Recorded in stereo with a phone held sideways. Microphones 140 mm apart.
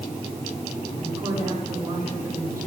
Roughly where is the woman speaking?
Right.